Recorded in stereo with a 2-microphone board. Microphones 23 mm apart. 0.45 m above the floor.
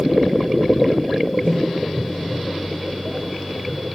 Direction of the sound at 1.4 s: 45° left (ahead or behind).